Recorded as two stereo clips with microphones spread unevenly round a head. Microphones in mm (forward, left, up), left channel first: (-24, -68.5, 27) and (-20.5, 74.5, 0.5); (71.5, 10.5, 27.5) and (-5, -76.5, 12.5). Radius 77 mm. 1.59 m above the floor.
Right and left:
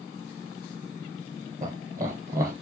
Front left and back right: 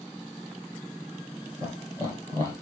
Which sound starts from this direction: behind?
Laughter, at 1.6 s.